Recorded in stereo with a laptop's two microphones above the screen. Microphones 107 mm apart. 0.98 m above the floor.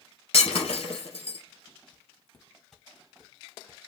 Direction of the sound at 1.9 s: 20° left (ahead or behind).